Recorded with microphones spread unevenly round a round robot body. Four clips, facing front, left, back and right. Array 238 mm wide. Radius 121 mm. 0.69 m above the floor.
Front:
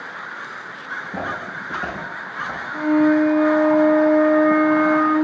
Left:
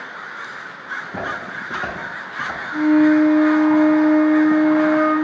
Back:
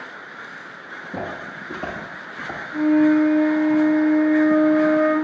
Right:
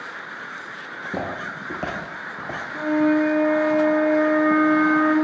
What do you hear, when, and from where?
0.9 s footsteps: 90° right, 1.4 m; by 2.6 s 140° right, 0.8 m
2.7 s a flute: 80° right, 2 m